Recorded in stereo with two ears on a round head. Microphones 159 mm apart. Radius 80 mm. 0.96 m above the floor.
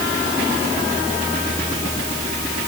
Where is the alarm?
No alarm in this recording.